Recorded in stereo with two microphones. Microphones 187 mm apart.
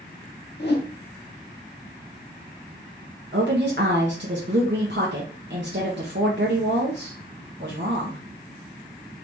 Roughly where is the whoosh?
Left.